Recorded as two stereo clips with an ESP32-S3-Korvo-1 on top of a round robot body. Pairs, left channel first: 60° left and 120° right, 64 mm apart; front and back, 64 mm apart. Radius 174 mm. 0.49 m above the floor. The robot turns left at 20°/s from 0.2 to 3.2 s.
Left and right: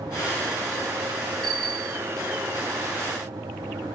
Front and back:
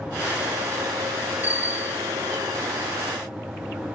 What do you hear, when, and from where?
1.4 s a bicycle bell: 120° right, 4 m; by 2.0 s 130° right, 4 m